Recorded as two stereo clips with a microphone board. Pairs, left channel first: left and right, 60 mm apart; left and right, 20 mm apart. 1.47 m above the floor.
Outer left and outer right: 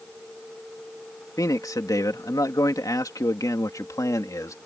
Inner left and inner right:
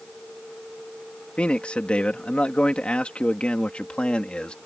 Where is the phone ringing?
I don't hear a phone ringing.